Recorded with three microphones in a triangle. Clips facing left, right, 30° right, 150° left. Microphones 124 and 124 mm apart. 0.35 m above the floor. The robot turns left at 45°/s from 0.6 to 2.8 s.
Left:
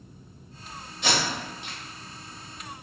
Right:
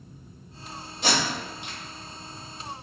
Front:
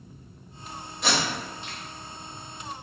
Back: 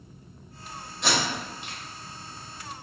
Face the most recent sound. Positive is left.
turn(degrees=165)